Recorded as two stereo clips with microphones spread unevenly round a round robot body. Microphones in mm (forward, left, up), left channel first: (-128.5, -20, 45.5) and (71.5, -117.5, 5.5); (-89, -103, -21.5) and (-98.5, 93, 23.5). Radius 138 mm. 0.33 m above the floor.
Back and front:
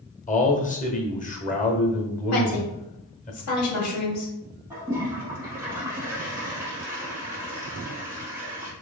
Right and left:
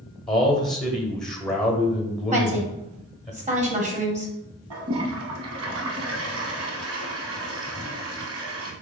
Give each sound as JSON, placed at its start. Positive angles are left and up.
{"t": 0.3, "sound": "a man speaking", "azimuth_deg": -155, "distance_m": 1.2}
{"t": 2.3, "sound": "a woman speaking", "azimuth_deg": 150, "distance_m": 1.6}
{"t": 4.7, "sound": "a toilet flushing", "azimuth_deg": 55, "distance_m": 0.5}